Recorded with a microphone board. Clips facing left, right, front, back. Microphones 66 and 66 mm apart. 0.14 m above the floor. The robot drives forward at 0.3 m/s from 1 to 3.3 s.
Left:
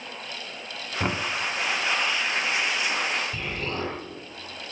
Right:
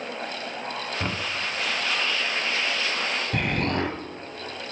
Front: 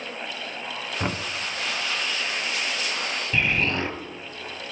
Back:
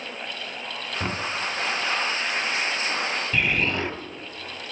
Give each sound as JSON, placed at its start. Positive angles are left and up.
{"t": 1.0, "sound": "knocking", "azimuth_deg": 50, "distance_m": 0.7}
{"t": 3.3, "sound": "an explosion", "azimuth_deg": -95, "distance_m": 2.0}